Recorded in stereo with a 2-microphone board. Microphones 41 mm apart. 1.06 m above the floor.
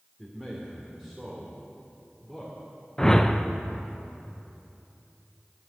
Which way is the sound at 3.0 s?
10° left (ahead or behind).